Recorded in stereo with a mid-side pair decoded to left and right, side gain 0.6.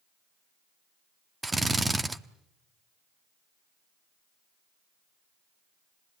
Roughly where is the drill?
Ahead.